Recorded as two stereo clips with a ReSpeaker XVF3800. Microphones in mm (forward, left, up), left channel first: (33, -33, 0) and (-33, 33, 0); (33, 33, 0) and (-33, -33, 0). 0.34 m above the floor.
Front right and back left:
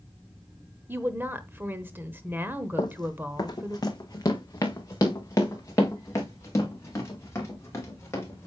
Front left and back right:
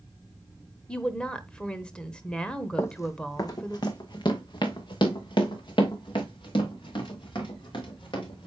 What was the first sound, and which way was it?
A woman speaking, 110° left.